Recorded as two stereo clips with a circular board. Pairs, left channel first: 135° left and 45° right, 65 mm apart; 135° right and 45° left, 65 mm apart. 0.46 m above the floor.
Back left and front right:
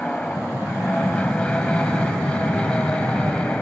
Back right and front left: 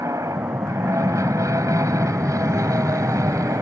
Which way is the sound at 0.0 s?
60° left.